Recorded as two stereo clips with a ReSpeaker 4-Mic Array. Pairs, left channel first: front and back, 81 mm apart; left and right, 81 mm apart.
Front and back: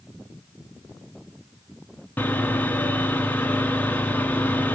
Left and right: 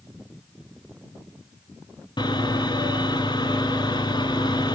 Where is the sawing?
70° left, 1.3 m.